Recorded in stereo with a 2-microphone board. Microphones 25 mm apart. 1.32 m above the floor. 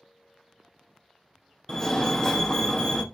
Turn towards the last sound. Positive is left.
turn(degrees=20)  # may be behind; listen again after turning